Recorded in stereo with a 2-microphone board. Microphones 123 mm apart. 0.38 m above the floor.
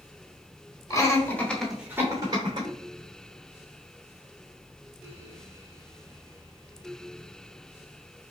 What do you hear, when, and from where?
0.9 s laughter: 30° left (ahead or behind), 1.6 m; by 2.7 s 40° right (ahead or behind), 1.6 m